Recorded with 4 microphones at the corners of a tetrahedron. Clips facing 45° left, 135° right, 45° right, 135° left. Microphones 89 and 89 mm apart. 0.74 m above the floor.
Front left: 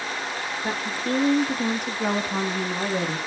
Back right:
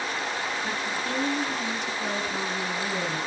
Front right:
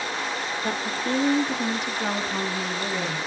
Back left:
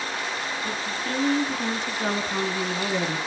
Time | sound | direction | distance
0.6 | a woman speaking | 5° right | 1.8 m